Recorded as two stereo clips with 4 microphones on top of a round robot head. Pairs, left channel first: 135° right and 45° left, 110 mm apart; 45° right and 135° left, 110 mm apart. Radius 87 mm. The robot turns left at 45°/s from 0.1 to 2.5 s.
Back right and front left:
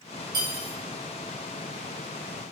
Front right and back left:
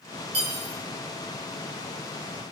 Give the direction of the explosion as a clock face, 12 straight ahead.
No explosion in this recording.